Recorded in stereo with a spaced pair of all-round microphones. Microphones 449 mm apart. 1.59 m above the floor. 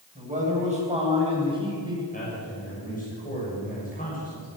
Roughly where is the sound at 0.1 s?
Centre.